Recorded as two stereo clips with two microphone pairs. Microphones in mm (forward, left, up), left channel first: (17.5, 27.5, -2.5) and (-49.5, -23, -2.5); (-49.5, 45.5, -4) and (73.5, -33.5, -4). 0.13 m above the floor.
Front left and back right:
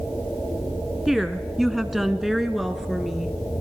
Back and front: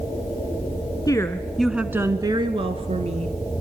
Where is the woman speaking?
135° left, 1.2 m; by 3.4 s 55° right, 1.9 m.